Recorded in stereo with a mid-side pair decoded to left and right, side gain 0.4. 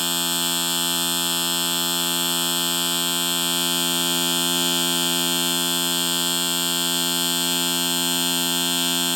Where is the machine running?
Straight ahead.